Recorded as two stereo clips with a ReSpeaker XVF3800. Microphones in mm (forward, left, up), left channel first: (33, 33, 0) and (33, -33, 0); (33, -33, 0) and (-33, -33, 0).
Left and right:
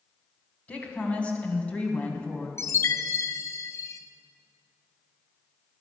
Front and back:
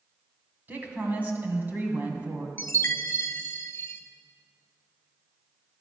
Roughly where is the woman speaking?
Behind left.